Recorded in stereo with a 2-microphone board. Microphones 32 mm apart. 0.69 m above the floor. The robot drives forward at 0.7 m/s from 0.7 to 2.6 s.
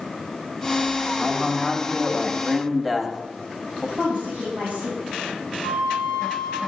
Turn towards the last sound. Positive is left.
turn(degrees=40)  # may be behind; listen again after turning